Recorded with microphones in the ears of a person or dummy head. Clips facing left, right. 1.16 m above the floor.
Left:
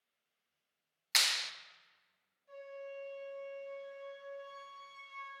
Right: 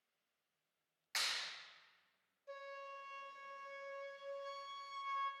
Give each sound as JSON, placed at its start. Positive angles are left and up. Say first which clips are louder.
{"t": 1.1, "sound": "a clap", "louder": "left 6 dB", "side_deg": 75, "distance_m": 0.5}
{"t": 2.5, "sound": "a flute", "louder": "left 6 dB", "side_deg": -60, "distance_m": 1.5}